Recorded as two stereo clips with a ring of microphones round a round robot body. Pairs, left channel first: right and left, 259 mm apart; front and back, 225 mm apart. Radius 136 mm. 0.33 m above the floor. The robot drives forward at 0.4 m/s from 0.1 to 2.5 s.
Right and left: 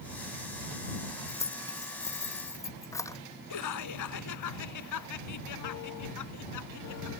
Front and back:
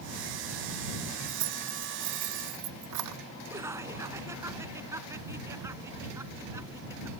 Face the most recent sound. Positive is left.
turn(degrees=-100)